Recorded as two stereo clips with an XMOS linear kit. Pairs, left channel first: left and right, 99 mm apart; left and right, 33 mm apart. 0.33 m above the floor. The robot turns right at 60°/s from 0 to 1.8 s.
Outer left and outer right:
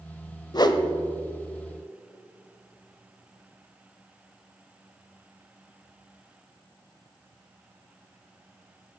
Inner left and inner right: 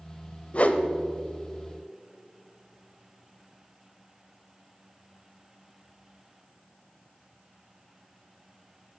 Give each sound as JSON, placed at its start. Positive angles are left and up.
{"t": 0.5, "sound": "a whoosh", "side_deg": 45, "distance_m": 0.7}